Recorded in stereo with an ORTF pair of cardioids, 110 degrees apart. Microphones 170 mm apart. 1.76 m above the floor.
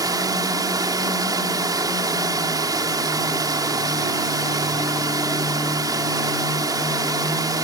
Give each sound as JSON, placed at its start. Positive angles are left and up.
{"t": 0.0, "sound": "running water", "azimuth_deg": -20}